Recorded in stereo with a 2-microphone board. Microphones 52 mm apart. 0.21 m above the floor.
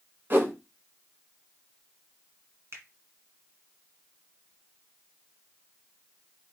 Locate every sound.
0.3 s a whoosh: 40° right (ahead or behind), 1.4 m
2.7 s a finger snap: 55° right (ahead or behind), 1.7 m